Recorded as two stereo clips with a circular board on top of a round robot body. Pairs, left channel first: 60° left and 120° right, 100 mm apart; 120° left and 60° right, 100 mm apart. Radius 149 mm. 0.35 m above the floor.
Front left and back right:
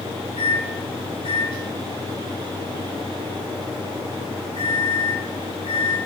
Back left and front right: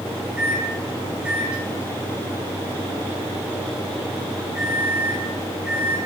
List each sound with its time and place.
0.4 s a microwave: 20° left, 6 m